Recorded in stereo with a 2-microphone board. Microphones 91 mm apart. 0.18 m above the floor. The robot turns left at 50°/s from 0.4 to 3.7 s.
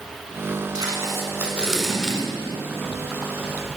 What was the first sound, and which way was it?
Tape being pulled, 40° right (ahead or behind).